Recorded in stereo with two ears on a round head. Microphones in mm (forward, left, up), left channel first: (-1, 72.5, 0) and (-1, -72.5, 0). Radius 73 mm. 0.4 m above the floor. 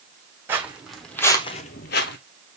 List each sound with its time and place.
0.5 s footsteps: 10° right (ahead or behind), 1.3 m; by 2.2 s 65° left (ahead or behind), 0.8 m